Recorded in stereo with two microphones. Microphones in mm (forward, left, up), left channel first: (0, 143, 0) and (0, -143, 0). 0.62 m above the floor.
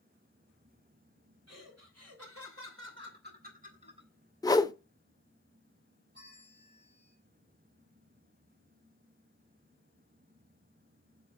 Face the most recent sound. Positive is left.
turn(degrees=-40)  # may be behind; listen again after turning